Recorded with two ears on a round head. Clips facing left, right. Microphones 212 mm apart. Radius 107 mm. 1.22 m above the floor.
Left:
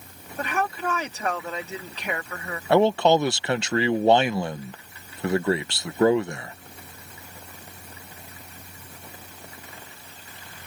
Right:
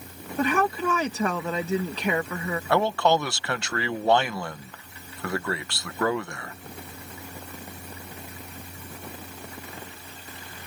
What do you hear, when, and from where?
0.4 s a woman speaking: 75° right (ahead or behind)
2.7 s a man speaking: 20° left (ahead or behind)